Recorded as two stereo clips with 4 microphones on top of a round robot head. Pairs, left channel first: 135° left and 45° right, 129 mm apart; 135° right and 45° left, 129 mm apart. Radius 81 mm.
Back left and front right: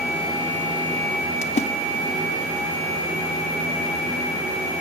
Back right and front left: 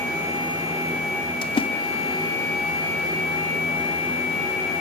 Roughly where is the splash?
Behind.